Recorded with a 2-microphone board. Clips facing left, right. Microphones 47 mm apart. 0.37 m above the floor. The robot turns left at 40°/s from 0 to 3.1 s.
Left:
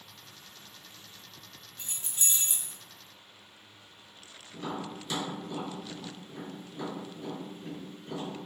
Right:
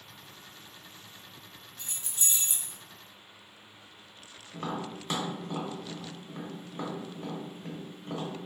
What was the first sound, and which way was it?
Keys jangling, 30° left (ahead or behind).